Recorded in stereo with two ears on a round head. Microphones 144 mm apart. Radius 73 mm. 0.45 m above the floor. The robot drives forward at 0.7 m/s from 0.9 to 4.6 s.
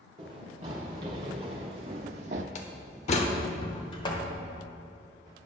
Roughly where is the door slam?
Left.